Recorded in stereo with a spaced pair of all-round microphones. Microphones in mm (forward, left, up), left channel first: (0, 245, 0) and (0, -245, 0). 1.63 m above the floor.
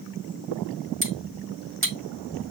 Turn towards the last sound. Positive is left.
turn(degrees=-25)  # may be behind; listen again after turning